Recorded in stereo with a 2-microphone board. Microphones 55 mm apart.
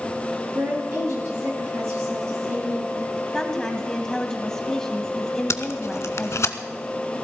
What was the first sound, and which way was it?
A woman speaking, 65° right (ahead or behind).